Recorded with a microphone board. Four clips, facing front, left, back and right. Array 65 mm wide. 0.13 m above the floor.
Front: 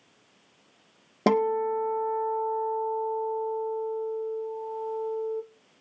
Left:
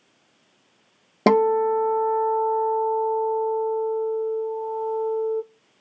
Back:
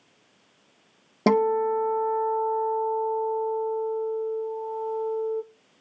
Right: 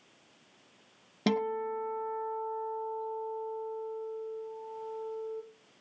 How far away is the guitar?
About 0.7 m.